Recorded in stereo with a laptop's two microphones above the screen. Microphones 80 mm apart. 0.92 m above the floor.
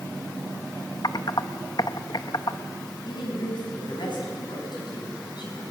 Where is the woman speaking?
65° left (ahead or behind), 5.5 m.